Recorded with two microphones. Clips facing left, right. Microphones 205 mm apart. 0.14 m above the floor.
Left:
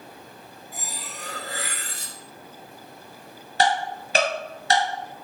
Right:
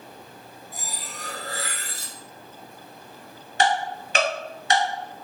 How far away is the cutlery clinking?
About 1.1 m.